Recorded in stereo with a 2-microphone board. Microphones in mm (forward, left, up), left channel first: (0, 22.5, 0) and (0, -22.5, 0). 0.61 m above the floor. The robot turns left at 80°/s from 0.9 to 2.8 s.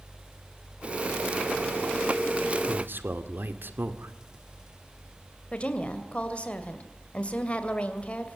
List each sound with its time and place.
2.7 s a man speaking: 55° right (ahead or behind), 2.0 m; by 4.1 s 50° right (ahead or behind), 2.0 m
5.5 s a woman speaking: 25° left (ahead or behind), 2 m